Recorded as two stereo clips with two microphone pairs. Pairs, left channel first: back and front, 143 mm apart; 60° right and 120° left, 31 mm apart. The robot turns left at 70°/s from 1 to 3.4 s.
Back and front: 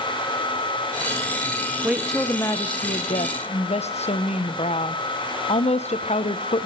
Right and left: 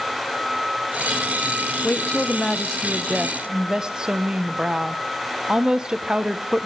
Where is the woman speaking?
80° right, 0.9 m; by 6.7 s 170° left, 0.9 m.